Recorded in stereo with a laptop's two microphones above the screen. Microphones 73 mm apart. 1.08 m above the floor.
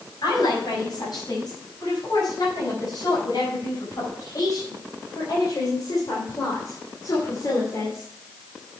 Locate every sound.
0.2 s a woman speaking: 65° left (ahead or behind), 6.5 m; by 8.1 s 45° left (ahead or behind), 2.5 m